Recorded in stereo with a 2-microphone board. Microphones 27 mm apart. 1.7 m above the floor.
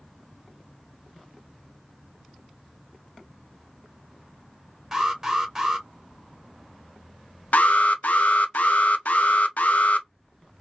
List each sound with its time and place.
4.9 s an alarm: 10° right (ahead or behind), 1.1 m
7.5 s an alarm: 75° left (ahead or behind), 0.5 m